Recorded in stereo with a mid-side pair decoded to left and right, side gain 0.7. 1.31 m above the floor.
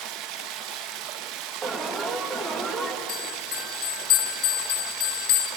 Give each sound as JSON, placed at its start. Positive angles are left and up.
{"t": 0.0, "sound": "running water", "azimuth_deg": -65, "distance_m": 1.3}
{"t": 1.6, "sound": "an alarm", "azimuth_deg": -25, "distance_m": 2.5}
{"t": 3.1, "sound": "a bell", "azimuth_deg": 65, "distance_m": 3.0}